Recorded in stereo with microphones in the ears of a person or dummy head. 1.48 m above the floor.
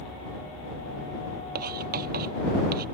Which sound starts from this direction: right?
Writing, at 1.6 s.